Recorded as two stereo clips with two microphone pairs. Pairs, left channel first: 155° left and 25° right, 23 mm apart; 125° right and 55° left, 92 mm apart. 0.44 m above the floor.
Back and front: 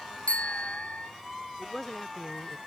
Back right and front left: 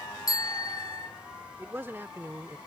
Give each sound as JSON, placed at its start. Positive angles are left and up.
{"t": 0.3, "sound": "a bicycle bell", "azimuth_deg": -170}
{"t": 1.6, "sound": "a man speaking", "azimuth_deg": 100}